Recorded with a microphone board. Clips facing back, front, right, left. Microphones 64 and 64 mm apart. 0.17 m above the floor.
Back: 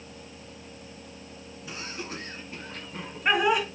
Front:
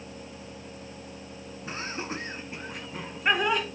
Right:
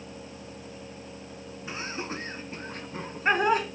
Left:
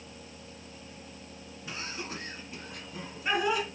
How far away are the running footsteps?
I don't hear running footsteps.